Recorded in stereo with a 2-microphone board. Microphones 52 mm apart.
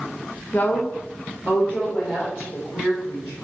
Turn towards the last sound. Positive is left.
turn(degrees=20)  # may be behind; listen again after turning